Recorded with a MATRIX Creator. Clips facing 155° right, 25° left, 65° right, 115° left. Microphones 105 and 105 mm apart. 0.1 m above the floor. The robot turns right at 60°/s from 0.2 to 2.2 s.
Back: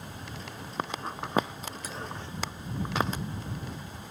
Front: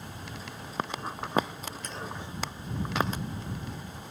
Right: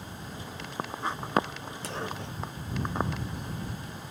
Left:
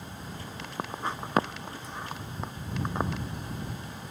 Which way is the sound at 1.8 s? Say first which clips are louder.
Front 1 dB, right 7 dB; 75° right.